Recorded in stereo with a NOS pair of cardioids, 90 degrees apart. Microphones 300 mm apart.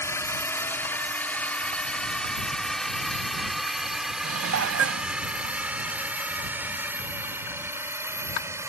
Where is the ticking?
No ticking in this recording.